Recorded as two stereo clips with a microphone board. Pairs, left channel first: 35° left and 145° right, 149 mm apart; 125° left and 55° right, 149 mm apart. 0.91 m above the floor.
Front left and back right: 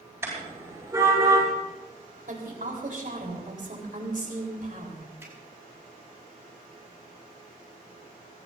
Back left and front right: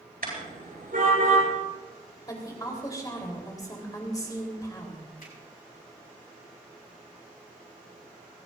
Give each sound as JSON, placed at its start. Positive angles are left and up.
{"t": 0.2, "sound": "a car horn", "azimuth_deg": -70, "distance_m": 9.0}
{"t": 2.3, "sound": "a woman speaking", "azimuth_deg": -170, "distance_m": 4.0}
{"t": 5.2, "sound": "a finger snap", "azimuth_deg": 140, "distance_m": 6.0}